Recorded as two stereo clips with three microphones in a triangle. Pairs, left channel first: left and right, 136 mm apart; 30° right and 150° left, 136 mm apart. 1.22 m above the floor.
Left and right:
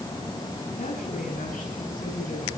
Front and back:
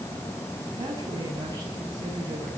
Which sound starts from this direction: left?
A woman speaking, at 0.8 s.